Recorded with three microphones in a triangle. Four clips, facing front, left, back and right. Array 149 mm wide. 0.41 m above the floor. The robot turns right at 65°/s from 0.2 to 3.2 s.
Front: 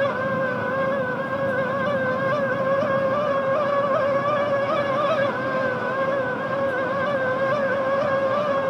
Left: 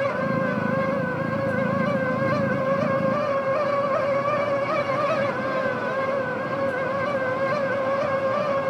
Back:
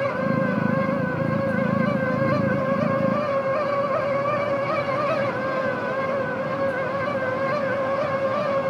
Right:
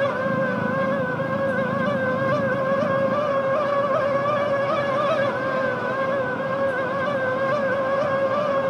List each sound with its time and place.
Only background noise.